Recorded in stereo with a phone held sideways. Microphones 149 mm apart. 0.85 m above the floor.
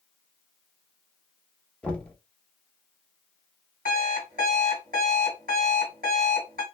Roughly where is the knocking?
Centre.